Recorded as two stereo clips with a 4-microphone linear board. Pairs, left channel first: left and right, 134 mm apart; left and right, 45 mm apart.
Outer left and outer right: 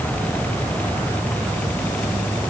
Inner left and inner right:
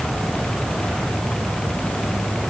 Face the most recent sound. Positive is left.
No sound to turn to.